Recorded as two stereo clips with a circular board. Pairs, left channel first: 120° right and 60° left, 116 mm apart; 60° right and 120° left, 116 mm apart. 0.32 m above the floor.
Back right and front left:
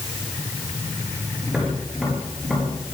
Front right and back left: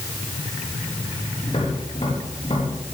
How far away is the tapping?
About 7.5 m.